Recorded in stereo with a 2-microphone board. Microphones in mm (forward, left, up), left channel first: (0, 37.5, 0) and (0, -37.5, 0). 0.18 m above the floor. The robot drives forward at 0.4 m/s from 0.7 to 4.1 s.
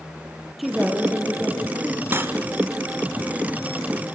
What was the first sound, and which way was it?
A woman speaking, 5° right (ahead or behind).